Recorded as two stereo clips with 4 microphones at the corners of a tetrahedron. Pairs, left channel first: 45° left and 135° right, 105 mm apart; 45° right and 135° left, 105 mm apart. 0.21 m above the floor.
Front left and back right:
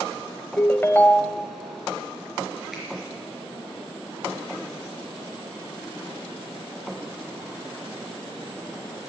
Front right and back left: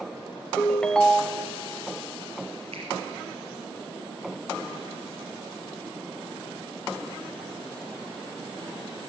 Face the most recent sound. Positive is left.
turn(degrees=135)